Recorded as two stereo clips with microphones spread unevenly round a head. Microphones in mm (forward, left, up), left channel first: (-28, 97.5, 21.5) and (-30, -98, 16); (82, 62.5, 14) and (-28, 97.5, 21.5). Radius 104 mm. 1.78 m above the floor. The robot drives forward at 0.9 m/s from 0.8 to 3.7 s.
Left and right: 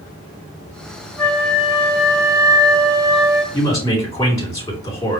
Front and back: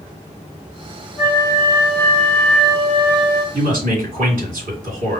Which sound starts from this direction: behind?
A man speaking, at 3.5 s.